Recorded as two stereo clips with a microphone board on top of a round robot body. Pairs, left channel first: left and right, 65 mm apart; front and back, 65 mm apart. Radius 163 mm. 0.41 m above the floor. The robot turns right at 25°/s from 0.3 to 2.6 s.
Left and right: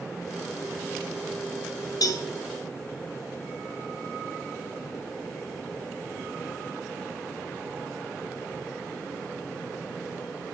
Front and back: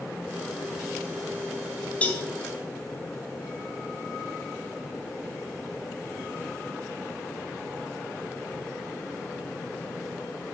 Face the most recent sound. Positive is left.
turn(degrees=85)